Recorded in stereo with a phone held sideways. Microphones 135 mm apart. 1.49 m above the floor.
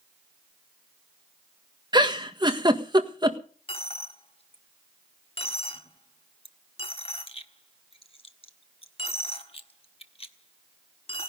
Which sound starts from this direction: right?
A giggle, at 1.9 s.